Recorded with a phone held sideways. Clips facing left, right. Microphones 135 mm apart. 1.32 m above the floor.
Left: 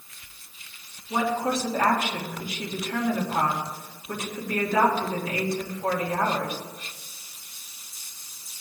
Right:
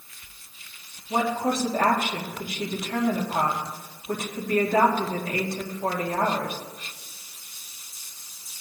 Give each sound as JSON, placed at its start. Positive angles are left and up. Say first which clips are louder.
{"t": 1.1, "sound": "a woman speaking", "louder": "right 1 dB", "side_deg": -50, "distance_m": 2.5}